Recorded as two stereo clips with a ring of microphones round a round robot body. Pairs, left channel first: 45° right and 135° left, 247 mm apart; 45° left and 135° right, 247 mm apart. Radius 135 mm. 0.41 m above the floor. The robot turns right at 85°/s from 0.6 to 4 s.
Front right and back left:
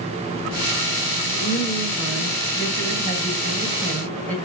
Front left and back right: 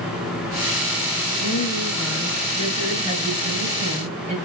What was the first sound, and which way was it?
A woman speaking, 10° left.